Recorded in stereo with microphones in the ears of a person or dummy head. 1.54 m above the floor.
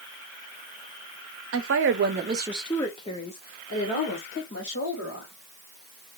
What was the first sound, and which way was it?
A woman speaking, 70° right (ahead or behind).